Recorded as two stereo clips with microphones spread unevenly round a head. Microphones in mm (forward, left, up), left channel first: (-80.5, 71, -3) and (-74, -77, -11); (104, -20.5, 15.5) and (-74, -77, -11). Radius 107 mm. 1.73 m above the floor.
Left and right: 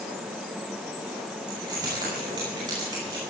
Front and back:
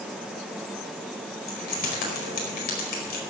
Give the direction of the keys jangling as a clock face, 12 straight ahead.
1 o'clock.